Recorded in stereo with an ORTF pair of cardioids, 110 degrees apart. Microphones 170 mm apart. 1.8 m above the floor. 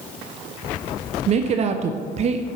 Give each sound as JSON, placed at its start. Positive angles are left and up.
{"t": 1.3, "sound": "a woman speaking", "azimuth_deg": -40, "distance_m": 0.5}